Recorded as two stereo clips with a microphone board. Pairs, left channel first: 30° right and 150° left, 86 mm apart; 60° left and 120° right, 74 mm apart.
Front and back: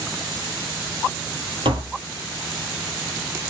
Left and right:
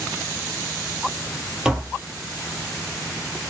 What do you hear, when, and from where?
1.6 s tapping: 155° left, 0.8 m